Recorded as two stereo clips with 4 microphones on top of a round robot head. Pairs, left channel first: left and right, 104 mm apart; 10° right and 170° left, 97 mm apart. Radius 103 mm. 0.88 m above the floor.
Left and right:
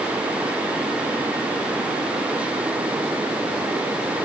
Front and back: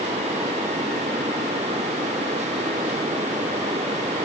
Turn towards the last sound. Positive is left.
No sound to turn to.